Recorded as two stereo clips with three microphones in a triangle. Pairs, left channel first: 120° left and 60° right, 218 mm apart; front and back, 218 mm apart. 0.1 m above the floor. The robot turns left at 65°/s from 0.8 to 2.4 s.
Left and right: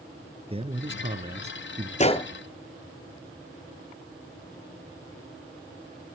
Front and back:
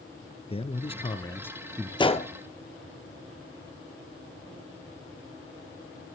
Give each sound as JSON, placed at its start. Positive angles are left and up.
{"t": 0.5, "sound": "a man speaking", "azimuth_deg": -30, "distance_m": 1.1}
{"t": 2.0, "sound": "a gunshot", "azimuth_deg": 65, "distance_m": 0.7}